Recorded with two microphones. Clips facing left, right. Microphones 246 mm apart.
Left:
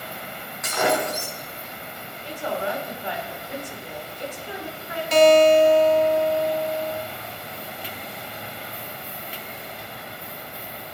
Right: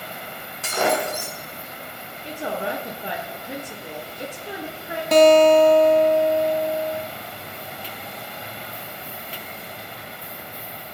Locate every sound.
0.6 s breaking glass: 35° right (ahead or behind), 4 m
2.2 s a woman speaking: 65° right (ahead or behind), 3.5 m
5.1 s a guitar: 60° right (ahead or behind), 0.9 m